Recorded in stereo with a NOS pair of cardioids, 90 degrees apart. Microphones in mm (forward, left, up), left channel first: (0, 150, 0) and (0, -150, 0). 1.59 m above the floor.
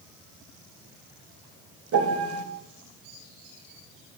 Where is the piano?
50° right, 4 m.